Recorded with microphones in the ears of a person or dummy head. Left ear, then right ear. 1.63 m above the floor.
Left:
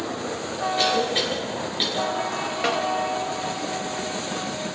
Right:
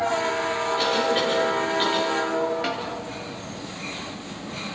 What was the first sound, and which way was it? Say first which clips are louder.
A cough: left 2 dB; 30° left (ahead or behind).